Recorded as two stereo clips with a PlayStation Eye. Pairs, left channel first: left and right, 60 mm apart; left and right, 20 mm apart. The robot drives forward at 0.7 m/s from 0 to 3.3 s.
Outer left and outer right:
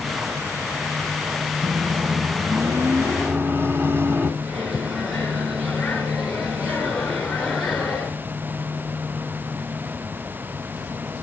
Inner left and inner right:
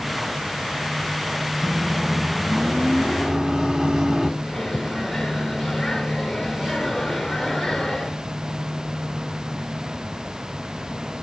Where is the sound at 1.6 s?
50° right (ahead or behind), 1.9 m; by 4.3 s 45° right (ahead or behind), 2 m.